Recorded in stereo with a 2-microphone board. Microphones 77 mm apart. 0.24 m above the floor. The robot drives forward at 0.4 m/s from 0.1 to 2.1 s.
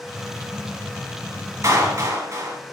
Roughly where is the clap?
Right.